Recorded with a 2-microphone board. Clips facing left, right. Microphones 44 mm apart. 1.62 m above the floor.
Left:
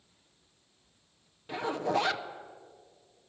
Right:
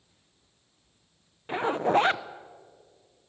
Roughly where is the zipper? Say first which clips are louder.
Right 6 dB; right.